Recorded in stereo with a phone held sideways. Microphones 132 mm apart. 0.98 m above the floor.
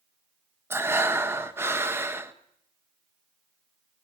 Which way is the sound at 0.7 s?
15° right (ahead or behind).